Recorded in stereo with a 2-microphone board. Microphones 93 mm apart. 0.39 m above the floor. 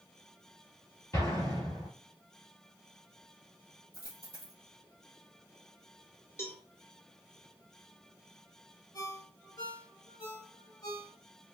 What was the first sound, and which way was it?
An explosion, 35° left (ahead or behind).